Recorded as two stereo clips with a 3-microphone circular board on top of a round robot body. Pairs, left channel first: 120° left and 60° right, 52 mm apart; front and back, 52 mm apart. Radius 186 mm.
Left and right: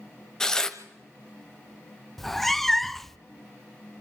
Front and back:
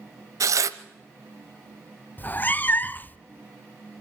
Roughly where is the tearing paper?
Behind.